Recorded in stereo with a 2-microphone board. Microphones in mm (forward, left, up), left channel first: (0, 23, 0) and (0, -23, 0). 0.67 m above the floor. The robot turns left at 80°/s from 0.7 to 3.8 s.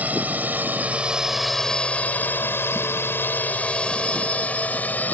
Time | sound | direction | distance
0.0 | a drone | 40° right (ahead or behind) | ?